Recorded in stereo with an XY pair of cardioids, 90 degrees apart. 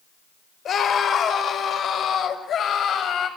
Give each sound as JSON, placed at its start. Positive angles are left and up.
{"t": 0.7, "sound": "a scream", "azimuth_deg": 65, "distance_m": 5.0}